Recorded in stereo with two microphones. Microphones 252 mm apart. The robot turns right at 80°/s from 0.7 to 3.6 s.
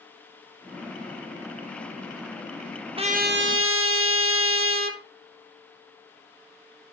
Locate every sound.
3.0 s a trumpet: 160° right, 1.2 m; by 5.0 s 105° right, 1.2 m